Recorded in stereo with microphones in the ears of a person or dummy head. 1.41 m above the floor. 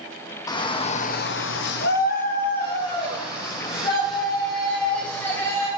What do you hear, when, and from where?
0.5 s a shout: 20° left (ahead or behind), 1.2 m; by 5.7 s 25° left (ahead or behind), 4.5 m